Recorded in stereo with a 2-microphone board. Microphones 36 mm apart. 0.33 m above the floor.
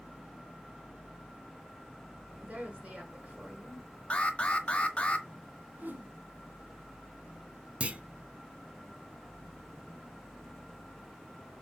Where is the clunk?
40° right (ahead or behind), 0.7 m.